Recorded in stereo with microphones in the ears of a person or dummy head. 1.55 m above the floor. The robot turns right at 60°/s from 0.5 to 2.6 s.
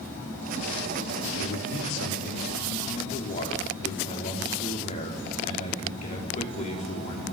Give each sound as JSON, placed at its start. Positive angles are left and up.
{"t": 1.4, "sound": "a man speaking", "azimuth_deg": 65, "distance_m": 4.5}